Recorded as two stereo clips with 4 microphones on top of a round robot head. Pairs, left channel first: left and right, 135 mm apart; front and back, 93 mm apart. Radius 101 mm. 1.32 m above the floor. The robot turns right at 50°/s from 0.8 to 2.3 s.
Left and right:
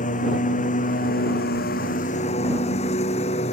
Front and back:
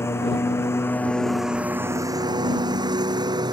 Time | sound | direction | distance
0.0 | a lawn mower | 65° left | ?